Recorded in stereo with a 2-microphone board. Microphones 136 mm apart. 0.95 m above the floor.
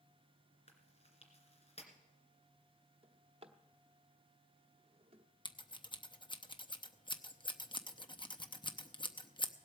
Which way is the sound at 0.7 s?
50° left (ahead or behind).